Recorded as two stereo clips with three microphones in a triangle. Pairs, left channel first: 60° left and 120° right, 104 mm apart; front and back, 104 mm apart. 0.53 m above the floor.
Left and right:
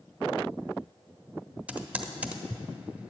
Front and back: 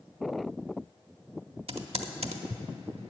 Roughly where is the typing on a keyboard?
Behind.